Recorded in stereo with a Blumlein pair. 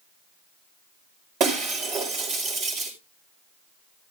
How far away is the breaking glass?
About 5 m.